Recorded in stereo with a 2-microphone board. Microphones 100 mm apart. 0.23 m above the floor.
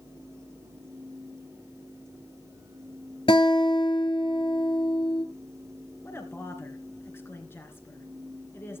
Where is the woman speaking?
25° left (ahead or behind), 2.5 m.